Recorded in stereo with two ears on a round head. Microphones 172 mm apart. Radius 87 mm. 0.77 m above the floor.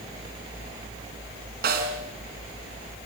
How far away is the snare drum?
About 4 m.